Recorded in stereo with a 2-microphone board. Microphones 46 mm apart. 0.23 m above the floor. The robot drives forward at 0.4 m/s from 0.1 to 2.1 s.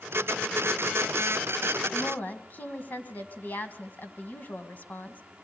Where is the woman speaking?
40° left (ahead or behind), 1.7 m.